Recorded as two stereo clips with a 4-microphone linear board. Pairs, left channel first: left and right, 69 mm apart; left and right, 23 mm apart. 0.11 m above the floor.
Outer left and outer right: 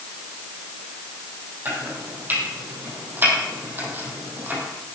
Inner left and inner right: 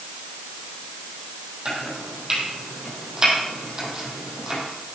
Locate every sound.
1.6 s chopping: 30° right (ahead or behind), 3.5 m